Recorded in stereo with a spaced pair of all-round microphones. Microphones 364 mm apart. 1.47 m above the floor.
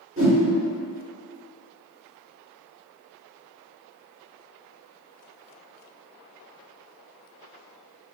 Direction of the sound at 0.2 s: 35° right (ahead or behind).